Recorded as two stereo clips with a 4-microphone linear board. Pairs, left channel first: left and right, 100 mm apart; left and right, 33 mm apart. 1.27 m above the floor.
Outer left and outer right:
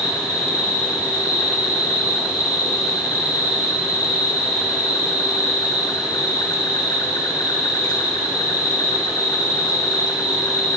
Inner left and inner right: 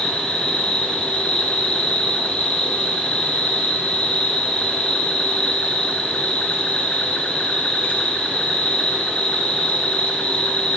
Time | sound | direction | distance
0.0 | an insect | 40° left (ahead or behind) | 1.1 m